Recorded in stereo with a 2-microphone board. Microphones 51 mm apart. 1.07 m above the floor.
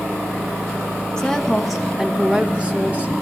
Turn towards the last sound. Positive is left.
turn(degrees=-30)  # may be behind; listen again after turning